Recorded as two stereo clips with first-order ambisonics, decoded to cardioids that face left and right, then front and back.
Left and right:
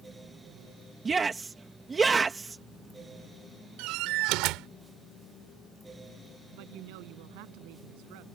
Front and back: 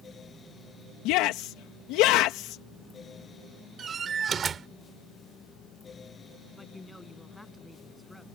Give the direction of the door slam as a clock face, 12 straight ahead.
4 o'clock.